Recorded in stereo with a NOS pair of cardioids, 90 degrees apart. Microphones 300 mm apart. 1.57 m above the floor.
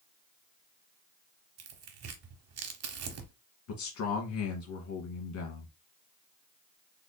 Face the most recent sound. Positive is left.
turn(degrees=70)